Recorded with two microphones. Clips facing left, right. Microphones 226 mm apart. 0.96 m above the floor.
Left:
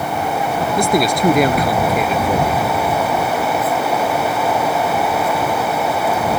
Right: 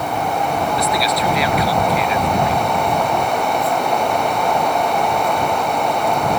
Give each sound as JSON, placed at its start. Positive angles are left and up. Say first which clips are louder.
{"t": 0.8, "sound": "a man speaking", "louder": "left 4 dB", "side_deg": 50}